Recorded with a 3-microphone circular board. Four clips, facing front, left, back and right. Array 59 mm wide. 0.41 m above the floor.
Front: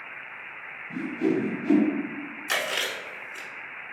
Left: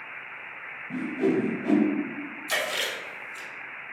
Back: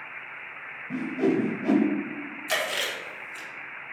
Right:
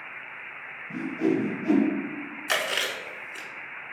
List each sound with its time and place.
0.9 s a whoosh: 165° left, 0.5 m
2.5 s chewing: 75° right, 0.8 m